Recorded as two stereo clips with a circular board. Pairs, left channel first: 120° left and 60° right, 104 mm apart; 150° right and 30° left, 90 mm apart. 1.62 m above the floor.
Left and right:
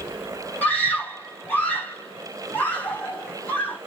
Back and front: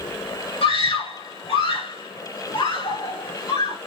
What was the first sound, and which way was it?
A scream, 165° right.